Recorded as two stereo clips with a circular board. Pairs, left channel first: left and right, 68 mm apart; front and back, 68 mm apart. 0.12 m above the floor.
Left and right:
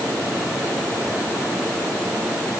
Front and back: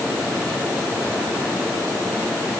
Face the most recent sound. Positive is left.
No sound to turn to.